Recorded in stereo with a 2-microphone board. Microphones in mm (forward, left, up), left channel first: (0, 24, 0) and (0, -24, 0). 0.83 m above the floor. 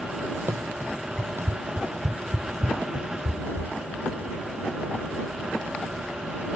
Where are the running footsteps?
60° right (ahead or behind); by 3.7 s 70° right (ahead or behind).